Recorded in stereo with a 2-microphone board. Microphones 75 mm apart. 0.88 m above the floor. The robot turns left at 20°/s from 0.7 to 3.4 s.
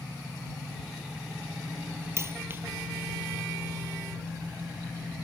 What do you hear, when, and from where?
2.2 s a dropped coin: 35° right (ahead or behind); by 2.6 s 30° right (ahead or behind)